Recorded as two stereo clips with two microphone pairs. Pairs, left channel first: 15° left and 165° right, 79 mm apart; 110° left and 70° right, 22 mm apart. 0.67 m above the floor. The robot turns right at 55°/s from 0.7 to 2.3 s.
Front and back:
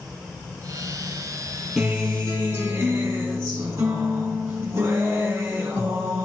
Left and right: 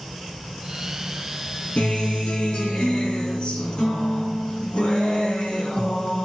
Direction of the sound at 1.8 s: 115° left.